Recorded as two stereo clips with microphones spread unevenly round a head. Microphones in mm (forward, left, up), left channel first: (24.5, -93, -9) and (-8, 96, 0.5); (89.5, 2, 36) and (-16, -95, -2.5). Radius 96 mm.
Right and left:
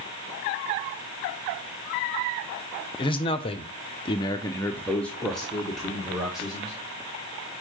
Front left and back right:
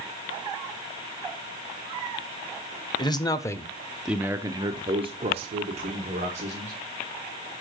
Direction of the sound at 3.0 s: 25° right.